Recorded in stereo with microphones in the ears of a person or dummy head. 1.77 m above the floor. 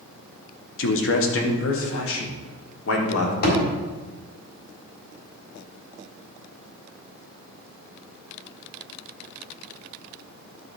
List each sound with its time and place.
0.8 s a man speaking: 80° left, 1.4 m; by 3.3 s 85° left, 2.5 m
3.4 s a thud: 55° left (ahead or behind), 4 m